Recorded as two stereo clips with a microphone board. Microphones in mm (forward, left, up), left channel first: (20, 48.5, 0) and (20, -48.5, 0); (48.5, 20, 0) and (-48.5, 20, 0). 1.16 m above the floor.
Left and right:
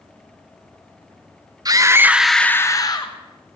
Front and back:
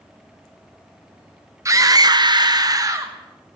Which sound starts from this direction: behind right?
A scream, at 1.6 s.